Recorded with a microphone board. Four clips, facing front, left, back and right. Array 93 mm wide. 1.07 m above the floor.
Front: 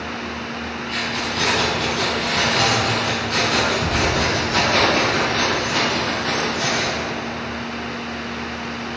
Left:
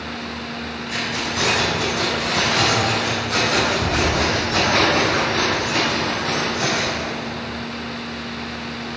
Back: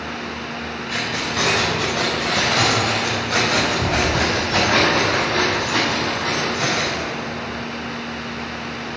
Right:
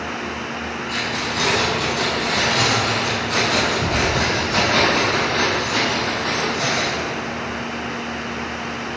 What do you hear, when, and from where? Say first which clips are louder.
0.9 s keys jangling: even, back 1 dB; 165° left, 4 m